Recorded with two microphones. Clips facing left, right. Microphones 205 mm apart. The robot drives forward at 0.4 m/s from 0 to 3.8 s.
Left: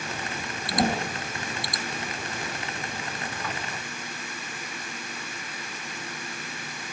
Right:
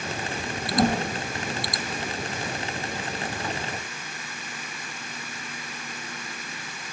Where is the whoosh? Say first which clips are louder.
Right 3 dB; 15° left (ahead or behind), 4.5 m.